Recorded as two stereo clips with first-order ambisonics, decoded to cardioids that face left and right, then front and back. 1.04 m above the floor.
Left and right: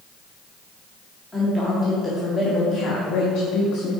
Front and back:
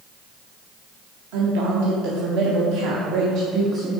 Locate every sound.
1.3 s a woman speaking: 175° left, 1.7 m; by 3.9 s 115° left, 1.3 m